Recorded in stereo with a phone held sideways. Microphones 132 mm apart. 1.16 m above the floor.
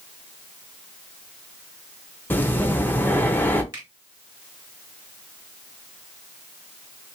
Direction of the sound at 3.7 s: 25° right (ahead or behind).